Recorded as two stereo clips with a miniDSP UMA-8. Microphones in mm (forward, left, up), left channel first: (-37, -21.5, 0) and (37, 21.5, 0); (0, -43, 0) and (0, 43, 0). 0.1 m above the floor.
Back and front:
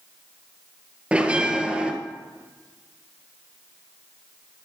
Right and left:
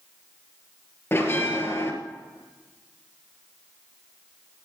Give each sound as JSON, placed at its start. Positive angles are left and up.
{"t": 1.1, "sound": "a bell", "azimuth_deg": -40, "distance_m": 1.6}